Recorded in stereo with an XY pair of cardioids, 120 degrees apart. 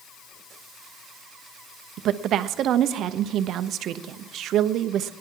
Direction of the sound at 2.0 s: 60° right.